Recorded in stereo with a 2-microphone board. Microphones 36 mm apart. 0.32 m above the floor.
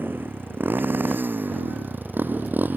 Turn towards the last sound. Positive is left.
turn(degrees=-55)  # may be behind; listen again after turning